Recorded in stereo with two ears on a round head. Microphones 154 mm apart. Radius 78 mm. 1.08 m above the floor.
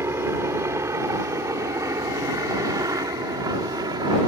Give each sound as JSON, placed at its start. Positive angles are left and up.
{"t": 0.0, "sound": "a helicopter", "side_deg": -15}